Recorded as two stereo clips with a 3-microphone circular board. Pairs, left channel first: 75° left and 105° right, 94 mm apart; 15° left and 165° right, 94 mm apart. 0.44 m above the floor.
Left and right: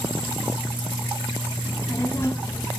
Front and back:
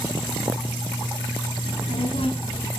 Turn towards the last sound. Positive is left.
turn(degrees=10)